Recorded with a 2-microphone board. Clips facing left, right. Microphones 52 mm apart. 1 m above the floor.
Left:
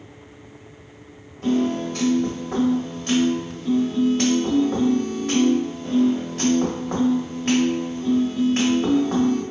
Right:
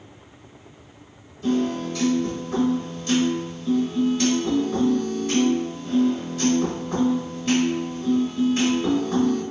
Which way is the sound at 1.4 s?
55° left (ahead or behind).